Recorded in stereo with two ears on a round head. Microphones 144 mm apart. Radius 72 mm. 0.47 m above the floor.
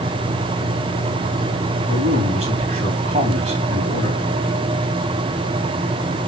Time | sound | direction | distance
1.9 | a man speaking | 45° right (ahead or behind) | 3.5 m